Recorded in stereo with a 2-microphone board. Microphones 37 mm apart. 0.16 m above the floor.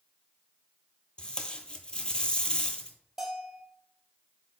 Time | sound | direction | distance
1.2 | tape being pulled | 25° left (ahead or behind) | 0.6 m
3.2 | a bell | centre (ahead or behind) | 1.3 m